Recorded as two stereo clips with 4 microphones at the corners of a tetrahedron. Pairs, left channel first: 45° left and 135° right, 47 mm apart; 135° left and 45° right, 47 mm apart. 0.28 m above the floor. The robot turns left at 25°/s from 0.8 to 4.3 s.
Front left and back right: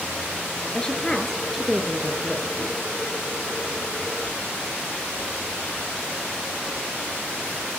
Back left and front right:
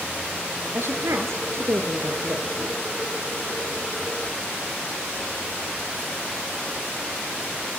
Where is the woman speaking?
20° right, 3.5 m; by 2.5 s 65° right, 3.5 m.